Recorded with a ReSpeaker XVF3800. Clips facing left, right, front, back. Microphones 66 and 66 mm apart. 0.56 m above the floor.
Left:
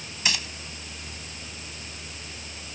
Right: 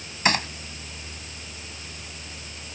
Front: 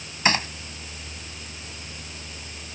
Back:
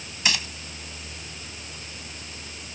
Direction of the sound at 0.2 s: 50° right.